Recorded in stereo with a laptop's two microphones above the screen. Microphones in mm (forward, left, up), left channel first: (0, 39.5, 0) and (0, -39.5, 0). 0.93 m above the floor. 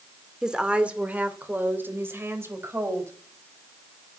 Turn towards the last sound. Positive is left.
turn(degrees=-35)  # may be behind; listen again after turning